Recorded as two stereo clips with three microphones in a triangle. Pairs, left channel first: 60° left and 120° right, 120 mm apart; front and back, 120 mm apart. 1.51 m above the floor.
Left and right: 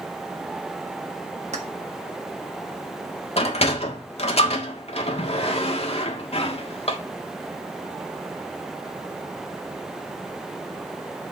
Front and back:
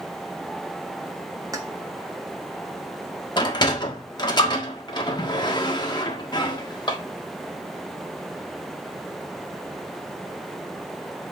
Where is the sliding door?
45° left, 1.5 m.